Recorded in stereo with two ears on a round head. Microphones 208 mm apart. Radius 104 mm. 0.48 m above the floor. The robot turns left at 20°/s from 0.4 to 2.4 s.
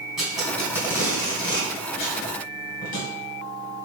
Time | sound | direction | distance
0.2 | tape being pulled | centre (ahead or behind) | 2 m